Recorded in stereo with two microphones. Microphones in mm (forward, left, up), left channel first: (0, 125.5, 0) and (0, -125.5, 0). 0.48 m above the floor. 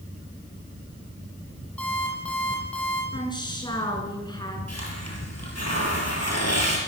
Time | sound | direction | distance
1.8 | an alarm clock | 5° left (ahead or behind) | 8.5 m
3.1 | a woman speaking | 15° left (ahead or behind) | 6.5 m
4.7 | a hiss | 80° left | 6.5 m